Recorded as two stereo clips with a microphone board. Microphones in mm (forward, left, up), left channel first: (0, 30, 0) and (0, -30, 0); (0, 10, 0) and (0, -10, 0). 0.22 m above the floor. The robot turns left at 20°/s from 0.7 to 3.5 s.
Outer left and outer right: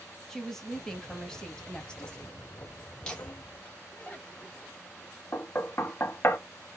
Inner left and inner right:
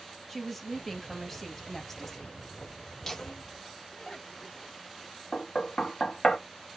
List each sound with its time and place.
0.3 s a woman speaking: 10° left (ahead or behind), 1.0 m; by 2.4 s 20° left (ahead or behind), 1.0 m
3.0 s laughter: 15° left (ahead or behind), 1.4 m; by 4.7 s 20° left (ahead or behind), 1.4 m
5.3 s knocking: 35° left (ahead or behind), 0.8 m